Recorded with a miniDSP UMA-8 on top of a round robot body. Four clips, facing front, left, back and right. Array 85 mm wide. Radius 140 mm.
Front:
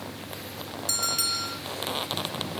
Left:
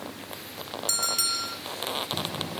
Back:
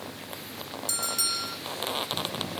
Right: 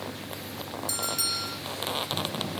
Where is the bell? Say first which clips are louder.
Left 1 dB, front 3 dB; 50° left, 3.5 m.